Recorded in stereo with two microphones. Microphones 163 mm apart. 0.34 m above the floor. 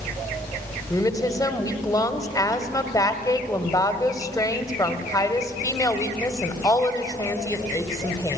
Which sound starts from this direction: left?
A woman speaking, at 0.9 s.